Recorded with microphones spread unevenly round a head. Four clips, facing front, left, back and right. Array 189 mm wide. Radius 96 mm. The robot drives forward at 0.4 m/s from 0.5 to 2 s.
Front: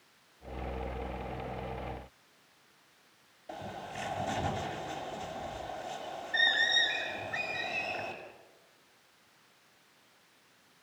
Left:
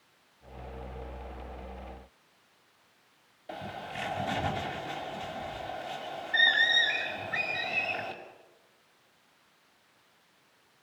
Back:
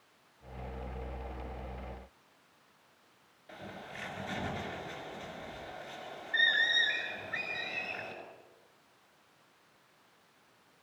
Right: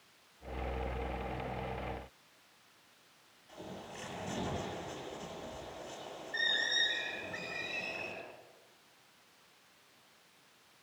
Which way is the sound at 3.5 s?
65° left.